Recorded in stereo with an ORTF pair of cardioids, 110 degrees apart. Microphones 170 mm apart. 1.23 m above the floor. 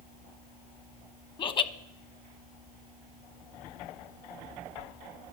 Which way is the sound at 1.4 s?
30° left.